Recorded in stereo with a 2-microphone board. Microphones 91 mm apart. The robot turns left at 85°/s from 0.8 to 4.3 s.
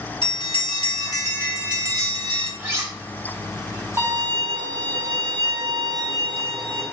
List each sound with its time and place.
0.2 s a bell: 65° left, 1.0 m; by 2.5 s 80° right, 1.0 m
2.6 s cutlery clinking: 15° right (ahead or behind), 1.0 m; by 2.9 s 45° right (ahead or behind), 1.0 m
4.0 s a violin: 20° right (ahead or behind), 2.0 m; by 6.8 s 50° right (ahead or behind), 2.0 m